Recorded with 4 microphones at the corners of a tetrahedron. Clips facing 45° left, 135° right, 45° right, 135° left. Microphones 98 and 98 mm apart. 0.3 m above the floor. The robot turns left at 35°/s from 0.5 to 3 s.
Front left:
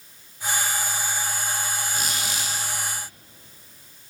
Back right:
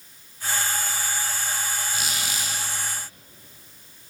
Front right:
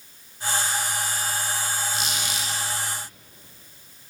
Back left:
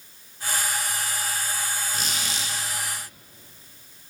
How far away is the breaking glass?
I don't hear breaking glass.